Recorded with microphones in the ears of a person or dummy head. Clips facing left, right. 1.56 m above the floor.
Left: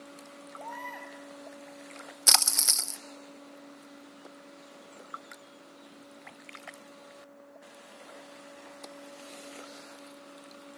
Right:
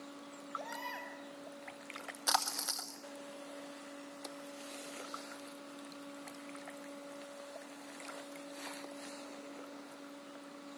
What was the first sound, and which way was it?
A baby crying, 35° right (ahead or behind).